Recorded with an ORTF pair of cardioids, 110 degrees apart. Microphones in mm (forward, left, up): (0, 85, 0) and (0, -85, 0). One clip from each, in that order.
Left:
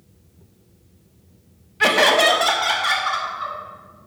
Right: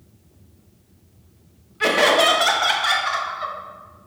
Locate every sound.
1.8 s laughter: 20° left, 0.6 m; by 3.5 s 15° right, 1.7 m